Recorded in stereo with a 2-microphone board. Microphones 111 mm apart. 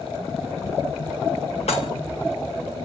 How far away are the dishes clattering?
About 2 m.